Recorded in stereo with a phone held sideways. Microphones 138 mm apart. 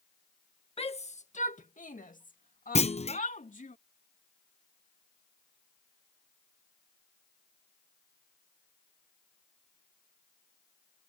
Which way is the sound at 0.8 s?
45° left (ahead or behind).